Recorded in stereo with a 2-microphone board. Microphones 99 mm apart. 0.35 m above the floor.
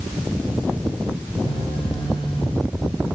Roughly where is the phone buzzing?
Left.